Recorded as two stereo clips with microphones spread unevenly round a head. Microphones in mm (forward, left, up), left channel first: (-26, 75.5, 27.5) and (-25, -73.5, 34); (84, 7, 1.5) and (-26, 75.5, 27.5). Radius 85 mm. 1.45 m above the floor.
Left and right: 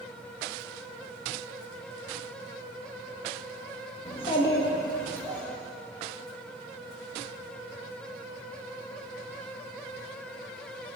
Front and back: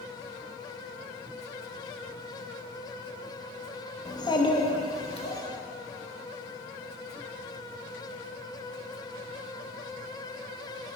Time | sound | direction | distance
4.0 | a child speaking | 35° left | 1.1 m